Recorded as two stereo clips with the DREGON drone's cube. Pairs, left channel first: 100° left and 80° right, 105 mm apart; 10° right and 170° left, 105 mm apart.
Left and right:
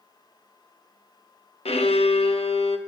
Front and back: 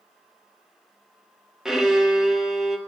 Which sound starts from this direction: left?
A violin, at 1.6 s.